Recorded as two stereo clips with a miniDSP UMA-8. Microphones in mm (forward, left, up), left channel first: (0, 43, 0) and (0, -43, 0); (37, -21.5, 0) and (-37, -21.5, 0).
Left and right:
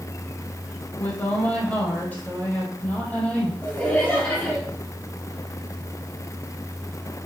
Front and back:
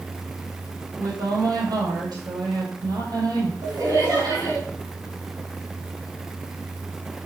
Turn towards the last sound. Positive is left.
turn(degrees=160)